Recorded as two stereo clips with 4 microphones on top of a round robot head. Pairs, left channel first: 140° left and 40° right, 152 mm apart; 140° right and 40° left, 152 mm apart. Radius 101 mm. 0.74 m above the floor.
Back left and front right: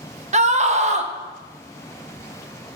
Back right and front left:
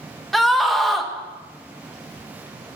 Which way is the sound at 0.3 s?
50° right.